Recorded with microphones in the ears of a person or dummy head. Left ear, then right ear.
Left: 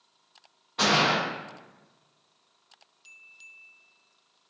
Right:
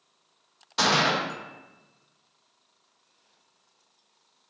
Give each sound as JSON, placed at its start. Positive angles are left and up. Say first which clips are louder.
{"t": 0.8, "sound": "a gunshot", "louder": "even", "side_deg": -70, "distance_m": 0.8}